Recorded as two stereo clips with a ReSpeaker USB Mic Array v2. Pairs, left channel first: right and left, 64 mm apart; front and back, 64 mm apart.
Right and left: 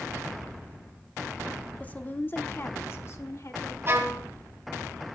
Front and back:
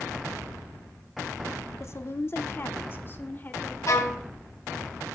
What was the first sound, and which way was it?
A woman speaking, 30° right.